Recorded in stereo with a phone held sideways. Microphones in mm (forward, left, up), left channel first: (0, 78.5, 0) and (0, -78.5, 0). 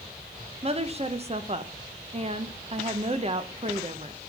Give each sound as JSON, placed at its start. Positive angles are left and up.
{"t": 0.6, "sound": "a woman speaking", "side_deg": -40, "distance_m": 0.9}